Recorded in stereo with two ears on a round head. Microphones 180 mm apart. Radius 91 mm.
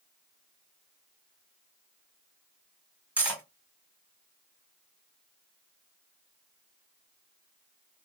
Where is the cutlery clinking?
5° right (ahead or behind), 1.4 m.